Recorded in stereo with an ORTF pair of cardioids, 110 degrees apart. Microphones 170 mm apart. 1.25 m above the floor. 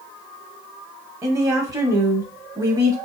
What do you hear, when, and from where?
1.2 s a woman speaking: 20° right, 1.0 m